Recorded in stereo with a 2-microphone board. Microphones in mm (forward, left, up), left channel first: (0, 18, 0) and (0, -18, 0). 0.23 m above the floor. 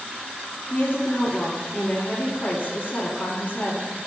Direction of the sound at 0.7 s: 60° left (ahead or behind).